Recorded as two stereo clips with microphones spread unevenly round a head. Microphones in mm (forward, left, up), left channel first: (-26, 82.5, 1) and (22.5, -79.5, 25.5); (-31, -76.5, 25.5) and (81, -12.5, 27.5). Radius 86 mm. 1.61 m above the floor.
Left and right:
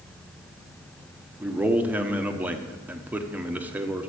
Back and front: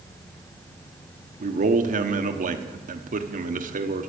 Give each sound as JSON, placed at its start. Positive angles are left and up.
{"t": 1.4, "sound": "a man speaking", "azimuth_deg": 10, "distance_m": 1.3}